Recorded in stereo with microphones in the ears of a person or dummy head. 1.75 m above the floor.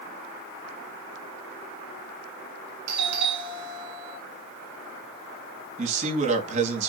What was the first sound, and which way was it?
A doorbell, 65° right (ahead or behind).